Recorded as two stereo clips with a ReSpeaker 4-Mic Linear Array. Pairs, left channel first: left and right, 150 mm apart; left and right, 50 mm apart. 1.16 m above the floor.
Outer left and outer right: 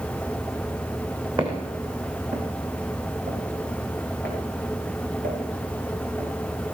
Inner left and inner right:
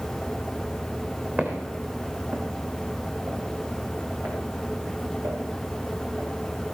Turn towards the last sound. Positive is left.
turn(degrees=-85)